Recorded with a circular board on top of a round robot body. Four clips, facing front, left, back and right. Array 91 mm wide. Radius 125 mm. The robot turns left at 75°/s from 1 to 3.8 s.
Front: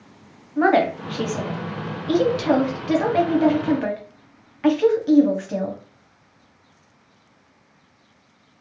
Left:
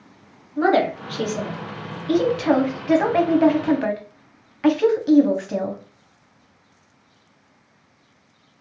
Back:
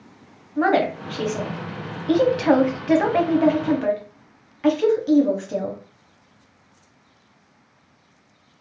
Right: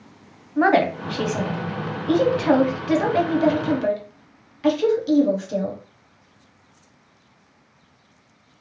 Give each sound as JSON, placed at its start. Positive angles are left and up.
{"t": 0.6, "sound": "a woman speaking", "azimuth_deg": -70, "distance_m": 1.0}